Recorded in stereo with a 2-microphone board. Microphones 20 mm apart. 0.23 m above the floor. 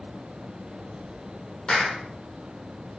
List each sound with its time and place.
1.7 s a clap: 55° left (ahead or behind), 7.5 m